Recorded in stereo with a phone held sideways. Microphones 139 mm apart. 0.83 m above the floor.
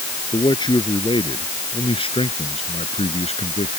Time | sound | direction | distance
0.3 | a man speaking | 30° left (ahead or behind) | ?